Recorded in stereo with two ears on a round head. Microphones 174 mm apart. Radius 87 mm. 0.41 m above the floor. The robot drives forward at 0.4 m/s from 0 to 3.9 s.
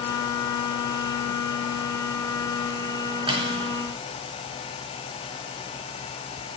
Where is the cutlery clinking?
25° right (ahead or behind), 3 m.